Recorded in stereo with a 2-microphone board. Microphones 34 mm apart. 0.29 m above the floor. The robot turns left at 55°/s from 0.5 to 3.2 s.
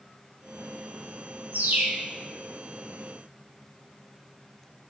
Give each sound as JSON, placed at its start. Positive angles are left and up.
{"t": 1.5, "sound": "a bird", "side_deg": -60, "distance_m": 0.8}